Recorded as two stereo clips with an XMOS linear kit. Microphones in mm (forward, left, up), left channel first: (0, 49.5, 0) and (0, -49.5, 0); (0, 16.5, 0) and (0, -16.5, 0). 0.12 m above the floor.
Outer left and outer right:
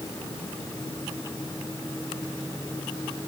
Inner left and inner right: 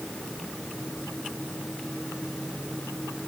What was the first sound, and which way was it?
Only background noise.